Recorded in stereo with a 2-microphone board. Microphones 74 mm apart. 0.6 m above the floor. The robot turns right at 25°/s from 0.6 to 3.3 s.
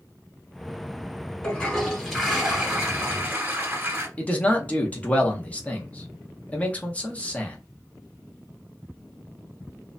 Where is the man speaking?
20° left (ahead or behind), 0.7 m.